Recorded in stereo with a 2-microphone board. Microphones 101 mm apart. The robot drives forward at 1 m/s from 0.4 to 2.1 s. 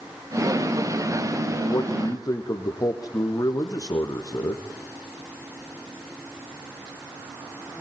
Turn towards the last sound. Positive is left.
turn(degrees=40)  # may be behind; listen again after turning